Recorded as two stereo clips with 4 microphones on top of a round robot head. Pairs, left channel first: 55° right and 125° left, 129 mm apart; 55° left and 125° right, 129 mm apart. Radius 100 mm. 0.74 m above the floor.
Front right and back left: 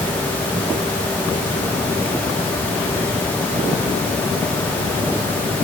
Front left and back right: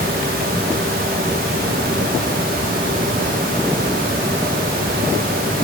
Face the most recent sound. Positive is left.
No sound to turn to.